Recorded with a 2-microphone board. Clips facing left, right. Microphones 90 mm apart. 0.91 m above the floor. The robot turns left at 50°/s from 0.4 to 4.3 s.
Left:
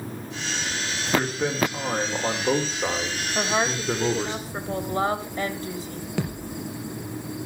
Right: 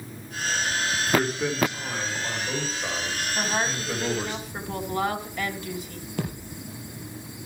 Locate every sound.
1.1 s a man speaking: 175° right, 2.5 m; by 4.3 s 25° left, 2.5 m
3.4 s a woman speaking: 80° left, 3.5 m; by 6.1 s 30° left, 3.5 m
6.2 s a thud: 80° left, 4 m